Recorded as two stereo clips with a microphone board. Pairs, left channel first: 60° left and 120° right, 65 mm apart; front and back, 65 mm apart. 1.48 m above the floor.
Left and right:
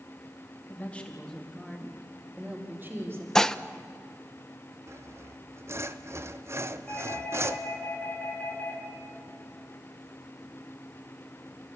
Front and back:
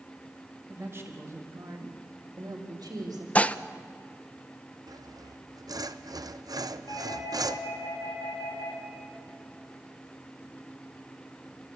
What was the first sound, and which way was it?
A woman speaking, 125° left.